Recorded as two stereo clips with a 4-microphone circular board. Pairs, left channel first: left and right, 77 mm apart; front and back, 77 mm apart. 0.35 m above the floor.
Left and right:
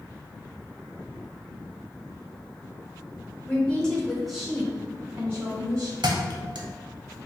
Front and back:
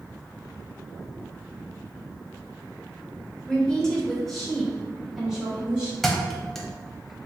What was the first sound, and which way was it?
A woman speaking, 60° left.